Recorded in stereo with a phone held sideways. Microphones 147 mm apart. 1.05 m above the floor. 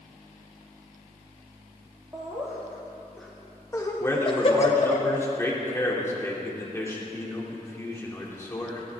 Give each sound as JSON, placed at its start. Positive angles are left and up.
{"t": 2.1, "sound": "laughter", "side_deg": -20, "distance_m": 2.0}
{"t": 4.0, "sound": "a man speaking", "side_deg": 20, "distance_m": 2.5}